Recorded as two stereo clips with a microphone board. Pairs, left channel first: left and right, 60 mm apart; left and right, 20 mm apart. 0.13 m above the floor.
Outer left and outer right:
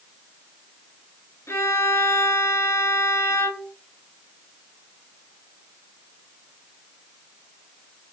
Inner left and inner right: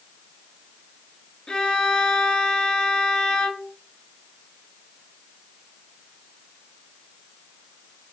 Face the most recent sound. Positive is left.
turn(degrees=50)  # may be behind; listen again after turning